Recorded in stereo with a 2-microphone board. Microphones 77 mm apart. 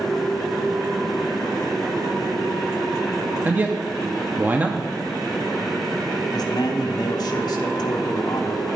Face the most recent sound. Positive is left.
turn(degrees=65)  # may be behind; listen again after turning